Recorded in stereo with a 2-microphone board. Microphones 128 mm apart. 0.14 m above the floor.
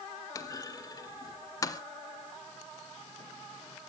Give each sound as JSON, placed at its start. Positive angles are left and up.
{"t": 0.3, "sound": "a clunk", "side_deg": 30, "distance_m": 0.7}